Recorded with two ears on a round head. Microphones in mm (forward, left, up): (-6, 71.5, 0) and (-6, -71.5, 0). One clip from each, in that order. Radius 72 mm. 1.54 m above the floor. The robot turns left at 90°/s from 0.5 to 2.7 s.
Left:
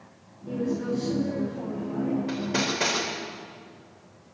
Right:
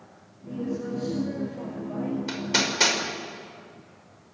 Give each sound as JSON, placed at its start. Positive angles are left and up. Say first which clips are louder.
{"t": 0.5, "sound": "a woman speaking", "louder": "left 3 dB", "azimuth_deg": 90, "distance_m": 7.0}
{"t": 2.3, "sound": "hammering", "louder": "right 7 dB", "side_deg": -65, "distance_m": 4.5}